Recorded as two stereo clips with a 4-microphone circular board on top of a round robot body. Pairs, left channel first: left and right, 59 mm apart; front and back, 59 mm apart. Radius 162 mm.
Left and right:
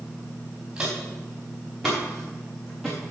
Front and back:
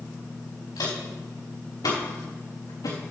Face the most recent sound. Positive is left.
turn(degrees=10)